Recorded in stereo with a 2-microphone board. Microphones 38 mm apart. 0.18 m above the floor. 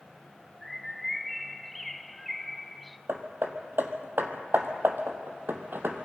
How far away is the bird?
About 0.7 m.